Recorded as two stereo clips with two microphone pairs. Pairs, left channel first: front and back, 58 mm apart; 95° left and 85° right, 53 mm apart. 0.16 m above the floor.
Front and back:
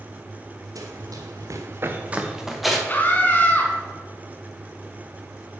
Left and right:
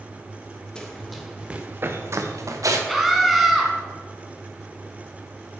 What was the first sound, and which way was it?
Running footsteps, 170° left.